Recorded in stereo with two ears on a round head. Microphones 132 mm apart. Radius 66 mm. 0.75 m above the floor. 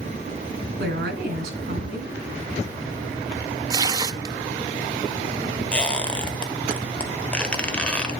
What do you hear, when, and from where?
0.8 s a woman speaking: 65° right (ahead or behind), 4.5 m
3.7 s tearing paper: 25° right (ahead or behind), 0.6 m
5.7 s a squeak: 10° left (ahead or behind), 1.3 m